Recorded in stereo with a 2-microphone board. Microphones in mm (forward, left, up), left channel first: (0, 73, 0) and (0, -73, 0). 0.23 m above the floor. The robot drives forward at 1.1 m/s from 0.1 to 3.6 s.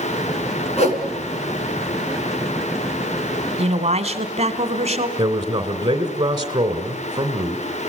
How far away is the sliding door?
No sliding door in this recording.